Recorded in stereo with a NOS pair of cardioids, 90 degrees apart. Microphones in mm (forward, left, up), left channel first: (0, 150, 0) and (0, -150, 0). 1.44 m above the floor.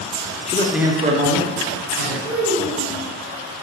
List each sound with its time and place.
0.5 s a man speaking: 25° left, 0.5 m; by 2.1 s 65° right, 1.2 m
2.2 s a child speaking: 55° right, 1.5 m